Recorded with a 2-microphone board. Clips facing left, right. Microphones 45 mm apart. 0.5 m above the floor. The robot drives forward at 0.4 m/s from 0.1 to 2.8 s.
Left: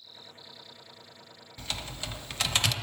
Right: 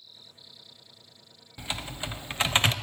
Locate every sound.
1.6 s typing on a keyboard: 20° right (ahead or behind), 1.1 m; by 2.7 s 30° right (ahead or behind), 0.6 m